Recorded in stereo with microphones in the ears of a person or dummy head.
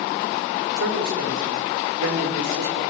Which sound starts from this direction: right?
A man speaking, at 0.8 s.